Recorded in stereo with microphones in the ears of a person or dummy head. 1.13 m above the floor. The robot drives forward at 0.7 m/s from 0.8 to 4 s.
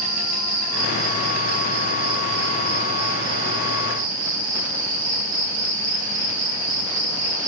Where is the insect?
50° right (ahead or behind), 6 m; by 7.5 s 70° right (ahead or behind), 5 m.